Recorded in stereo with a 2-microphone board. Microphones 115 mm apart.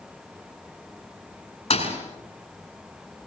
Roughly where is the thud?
Left.